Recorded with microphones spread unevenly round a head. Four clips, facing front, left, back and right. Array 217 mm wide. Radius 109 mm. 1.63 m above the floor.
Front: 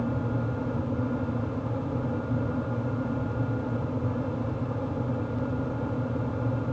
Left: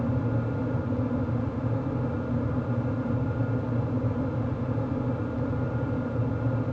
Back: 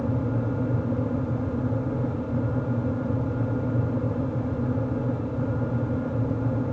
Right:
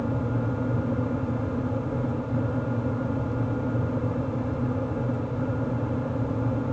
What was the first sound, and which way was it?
Only background noise.